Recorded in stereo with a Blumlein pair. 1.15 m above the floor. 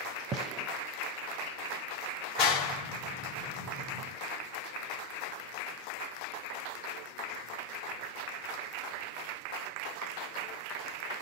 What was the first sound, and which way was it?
A gunshot, 25° right.